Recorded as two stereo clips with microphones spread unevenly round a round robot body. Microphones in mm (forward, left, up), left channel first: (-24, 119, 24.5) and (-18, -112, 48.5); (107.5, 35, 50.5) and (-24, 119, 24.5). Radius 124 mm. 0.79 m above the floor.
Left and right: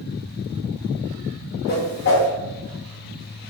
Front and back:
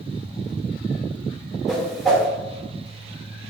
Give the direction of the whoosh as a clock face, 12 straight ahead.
10 o'clock.